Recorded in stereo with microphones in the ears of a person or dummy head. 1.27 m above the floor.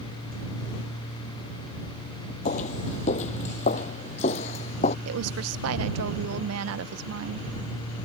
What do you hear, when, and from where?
2.5 s footsteps: 40° left (ahead or behind)
5.0 s a woman speaking: 85° right